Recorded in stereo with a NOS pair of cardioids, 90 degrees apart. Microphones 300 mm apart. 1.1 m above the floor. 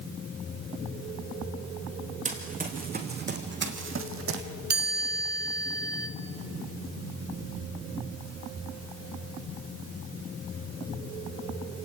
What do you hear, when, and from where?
2.2 s running footsteps: 25° right, 4.5 m; by 4.5 s 60° right, 2.5 m
4.7 s a chime: 35° right, 3 m